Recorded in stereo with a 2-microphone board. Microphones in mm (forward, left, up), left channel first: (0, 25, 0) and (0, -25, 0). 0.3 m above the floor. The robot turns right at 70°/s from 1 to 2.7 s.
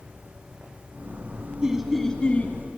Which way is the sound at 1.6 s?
20° right.